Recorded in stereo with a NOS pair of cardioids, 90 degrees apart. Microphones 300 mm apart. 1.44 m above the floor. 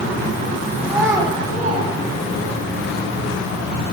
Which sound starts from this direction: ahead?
A child speaking, at 0.8 s.